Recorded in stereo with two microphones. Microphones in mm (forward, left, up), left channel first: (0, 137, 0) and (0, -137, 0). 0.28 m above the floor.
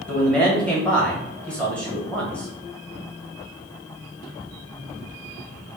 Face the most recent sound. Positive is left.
turn(degrees=5)  # may be behind; listen again after turning